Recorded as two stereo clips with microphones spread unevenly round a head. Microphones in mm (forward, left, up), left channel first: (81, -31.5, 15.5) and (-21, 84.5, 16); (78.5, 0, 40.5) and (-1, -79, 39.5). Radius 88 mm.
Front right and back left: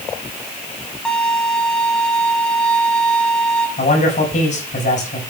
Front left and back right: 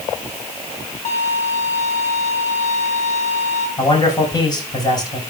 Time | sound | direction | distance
1.1 | a violin | 35° left | 2.5 m
3.8 | a man speaking | 10° right | 5 m